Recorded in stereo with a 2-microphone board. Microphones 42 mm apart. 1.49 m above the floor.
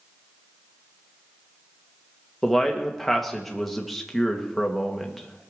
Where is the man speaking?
5° left (ahead or behind), 2.0 m.